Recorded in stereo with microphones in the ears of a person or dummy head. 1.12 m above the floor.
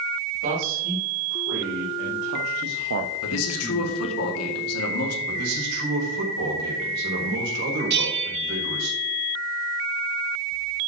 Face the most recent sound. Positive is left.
turn(degrees=-55)  # may be behind; listen again after turning